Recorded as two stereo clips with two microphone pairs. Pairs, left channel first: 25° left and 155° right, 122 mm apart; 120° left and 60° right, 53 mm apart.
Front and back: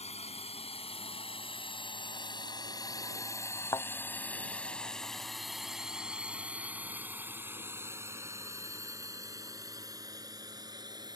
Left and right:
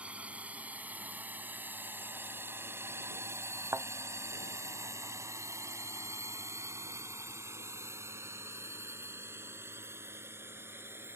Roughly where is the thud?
Ahead right.